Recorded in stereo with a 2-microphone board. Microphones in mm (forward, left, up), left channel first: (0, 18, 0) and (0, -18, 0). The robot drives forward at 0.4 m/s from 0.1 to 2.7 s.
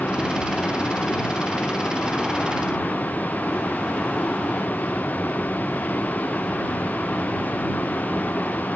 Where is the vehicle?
50° left (ahead or behind); by 8.8 s 55° left (ahead or behind).